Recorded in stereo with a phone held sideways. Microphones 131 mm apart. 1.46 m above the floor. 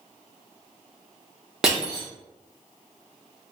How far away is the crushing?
About 0.9 m.